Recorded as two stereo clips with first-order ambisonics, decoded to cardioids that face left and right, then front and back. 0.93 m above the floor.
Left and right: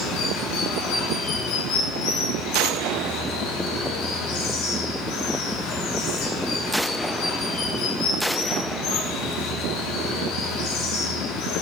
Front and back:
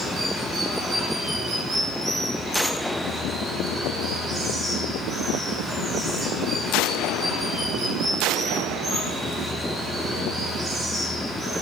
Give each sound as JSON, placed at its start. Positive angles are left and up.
{"t": 0.0, "sound": "running water", "azimuth_deg": 115, "distance_m": 3.5}